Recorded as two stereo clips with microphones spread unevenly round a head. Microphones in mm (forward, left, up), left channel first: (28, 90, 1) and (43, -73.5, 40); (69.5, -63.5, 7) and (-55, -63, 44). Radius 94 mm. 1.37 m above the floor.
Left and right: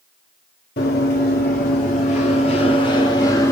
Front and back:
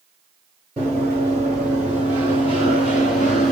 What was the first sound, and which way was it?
Running footsteps, 95° left.